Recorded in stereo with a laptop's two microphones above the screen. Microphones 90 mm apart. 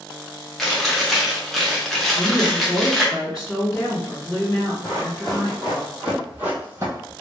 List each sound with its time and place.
0.6 s chewing: 5° left (ahead or behind), 0.9 m
2.1 s a woman speaking: 5° right (ahead or behind), 1.3 m
4.8 s running footsteps: 10° left (ahead or behind), 1.6 m; by 7.1 s 35° right (ahead or behind), 1.3 m